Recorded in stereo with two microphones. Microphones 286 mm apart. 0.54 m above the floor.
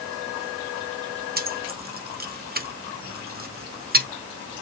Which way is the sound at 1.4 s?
35° right (ahead or behind).